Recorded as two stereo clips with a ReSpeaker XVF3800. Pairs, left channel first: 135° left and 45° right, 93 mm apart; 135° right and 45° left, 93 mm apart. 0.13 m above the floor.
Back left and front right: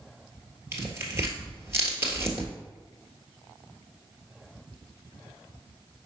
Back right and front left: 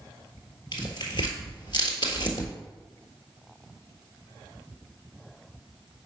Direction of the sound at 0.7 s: 105° right.